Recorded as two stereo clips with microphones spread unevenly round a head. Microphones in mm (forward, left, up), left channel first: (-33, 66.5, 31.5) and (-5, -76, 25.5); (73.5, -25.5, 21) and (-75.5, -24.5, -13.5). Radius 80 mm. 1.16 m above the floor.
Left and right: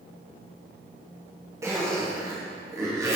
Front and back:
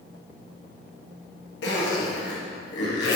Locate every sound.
1.6 s a zipper: 10° right, 2 m